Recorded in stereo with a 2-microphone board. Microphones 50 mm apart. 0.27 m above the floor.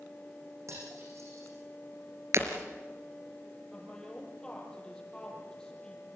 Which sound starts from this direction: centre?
A woman speaking, at 3.7 s.